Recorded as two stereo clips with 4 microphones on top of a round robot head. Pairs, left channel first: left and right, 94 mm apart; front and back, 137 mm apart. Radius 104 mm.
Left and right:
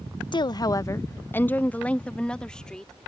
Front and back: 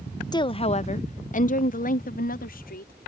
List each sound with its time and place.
0.3 s a woman speaking: 60° left; by 3.1 s 5° left